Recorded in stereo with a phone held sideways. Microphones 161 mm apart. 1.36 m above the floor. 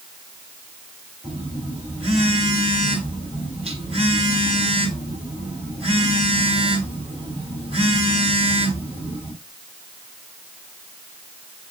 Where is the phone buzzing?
40° right (ahead or behind), 3 m.